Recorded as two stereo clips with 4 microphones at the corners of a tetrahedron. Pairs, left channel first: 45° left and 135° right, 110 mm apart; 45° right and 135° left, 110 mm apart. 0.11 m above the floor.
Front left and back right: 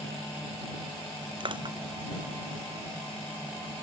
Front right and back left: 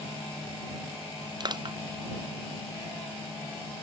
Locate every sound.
1.4 s crushing: straight behind